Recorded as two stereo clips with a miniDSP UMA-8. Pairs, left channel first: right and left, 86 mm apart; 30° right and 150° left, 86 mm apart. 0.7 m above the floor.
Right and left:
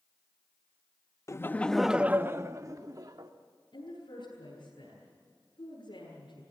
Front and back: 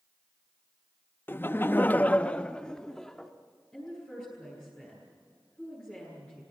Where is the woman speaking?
110° right, 9.5 m.